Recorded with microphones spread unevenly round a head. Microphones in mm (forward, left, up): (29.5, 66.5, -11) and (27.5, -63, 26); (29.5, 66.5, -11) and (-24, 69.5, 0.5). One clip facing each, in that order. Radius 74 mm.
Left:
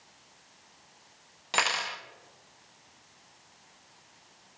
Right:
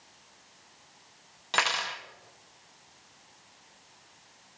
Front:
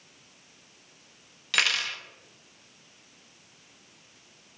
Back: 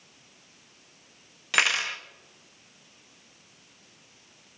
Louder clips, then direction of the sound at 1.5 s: Even, back 2 dB; 165° right.